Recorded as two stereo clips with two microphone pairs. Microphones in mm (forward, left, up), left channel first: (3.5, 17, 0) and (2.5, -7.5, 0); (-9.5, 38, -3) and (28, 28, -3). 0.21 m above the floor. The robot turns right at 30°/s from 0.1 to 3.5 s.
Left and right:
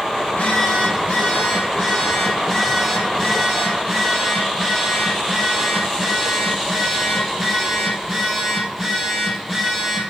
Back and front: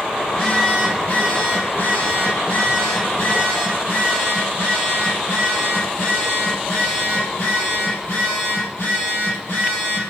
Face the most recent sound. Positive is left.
turn(degrees=-170)